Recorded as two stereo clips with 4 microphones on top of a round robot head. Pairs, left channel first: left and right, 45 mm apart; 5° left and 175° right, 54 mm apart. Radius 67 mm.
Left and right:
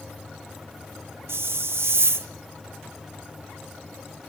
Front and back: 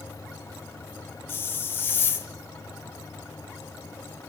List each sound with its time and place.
1.3 s a hiss: 55° right, 1.0 m